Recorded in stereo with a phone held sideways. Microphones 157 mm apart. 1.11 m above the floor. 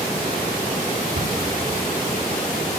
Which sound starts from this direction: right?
A cupboard door, at 1.1 s.